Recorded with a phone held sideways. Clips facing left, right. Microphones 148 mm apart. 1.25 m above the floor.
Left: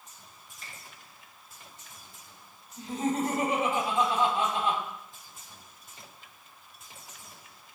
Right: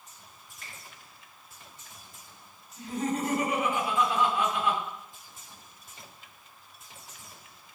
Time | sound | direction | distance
0.6 | a finger snap | 75° right (ahead or behind) | 3 m
2.8 | laughter | 35° left (ahead or behind) | 4.5 m